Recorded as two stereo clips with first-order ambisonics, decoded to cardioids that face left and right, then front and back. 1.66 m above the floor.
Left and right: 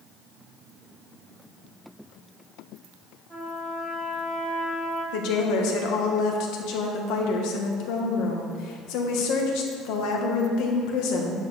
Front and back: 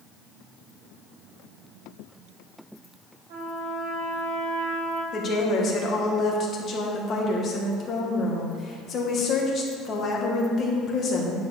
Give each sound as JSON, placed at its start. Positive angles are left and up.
{"t": 3.3, "sound": "a trumpet", "azimuth_deg": 175, "distance_m": 2.5}
{"t": 5.1, "sound": "a woman speaking", "azimuth_deg": 60, "distance_m": 1.6}